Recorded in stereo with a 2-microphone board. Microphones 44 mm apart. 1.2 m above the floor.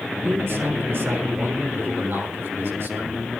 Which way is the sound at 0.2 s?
60° right (ahead or behind).